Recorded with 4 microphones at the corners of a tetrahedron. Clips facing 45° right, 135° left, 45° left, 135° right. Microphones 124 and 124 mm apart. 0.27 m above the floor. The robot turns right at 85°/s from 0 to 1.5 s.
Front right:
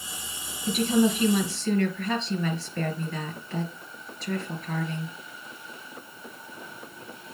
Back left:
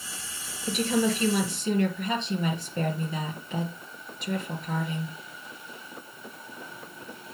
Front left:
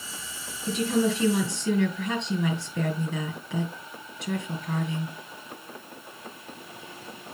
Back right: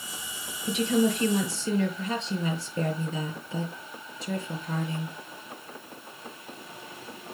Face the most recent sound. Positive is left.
turn(degrees=65)